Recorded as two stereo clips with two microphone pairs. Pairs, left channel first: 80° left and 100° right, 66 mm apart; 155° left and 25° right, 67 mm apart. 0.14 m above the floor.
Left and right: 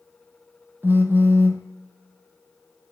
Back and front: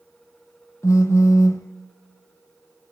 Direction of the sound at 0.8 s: 160° right.